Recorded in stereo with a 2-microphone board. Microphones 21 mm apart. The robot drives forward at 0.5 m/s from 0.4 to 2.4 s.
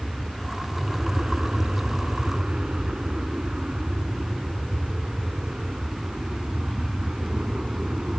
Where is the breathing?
I don't hear breathing.